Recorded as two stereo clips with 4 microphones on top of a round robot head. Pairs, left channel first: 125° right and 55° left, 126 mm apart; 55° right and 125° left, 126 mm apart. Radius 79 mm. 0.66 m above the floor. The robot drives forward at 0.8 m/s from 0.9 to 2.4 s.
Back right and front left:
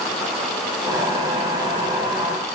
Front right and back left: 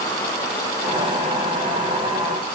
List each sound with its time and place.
Only background noise.